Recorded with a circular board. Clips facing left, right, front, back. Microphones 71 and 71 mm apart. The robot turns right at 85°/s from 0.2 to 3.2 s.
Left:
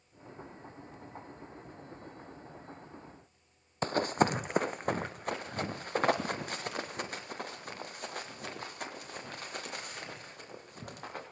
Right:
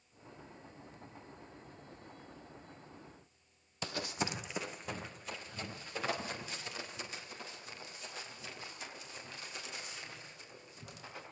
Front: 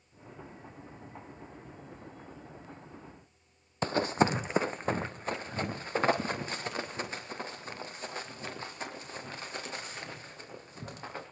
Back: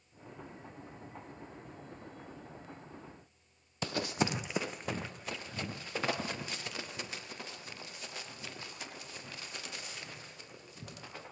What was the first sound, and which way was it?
Running footsteps, 50° left.